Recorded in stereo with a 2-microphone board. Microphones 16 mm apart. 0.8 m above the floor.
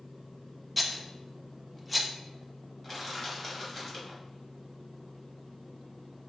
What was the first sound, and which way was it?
A rattle, 5° right (ahead or behind).